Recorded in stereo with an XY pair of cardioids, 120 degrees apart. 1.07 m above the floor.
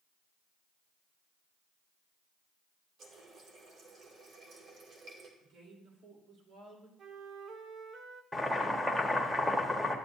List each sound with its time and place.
3.0 s a running tap: 60° right, 2 m
5.4 s a woman speaking: 70° right, 3 m
7.0 s a flute: 55° right, 0.6 m
8.3 s boiling: straight ahead, 1.2 m